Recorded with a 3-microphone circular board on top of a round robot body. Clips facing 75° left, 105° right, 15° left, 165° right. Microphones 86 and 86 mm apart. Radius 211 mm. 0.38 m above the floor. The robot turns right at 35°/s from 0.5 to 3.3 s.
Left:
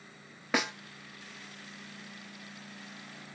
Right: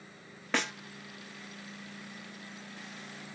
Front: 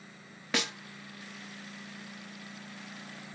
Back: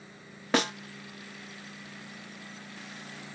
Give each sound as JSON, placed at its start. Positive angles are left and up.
{"t": 0.5, "sound": "a snare drum", "azimuth_deg": 155, "distance_m": 0.6}